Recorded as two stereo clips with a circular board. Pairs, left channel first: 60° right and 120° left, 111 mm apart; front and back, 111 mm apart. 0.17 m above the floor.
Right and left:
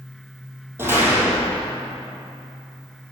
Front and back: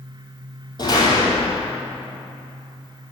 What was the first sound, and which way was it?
A door slam, 50° left.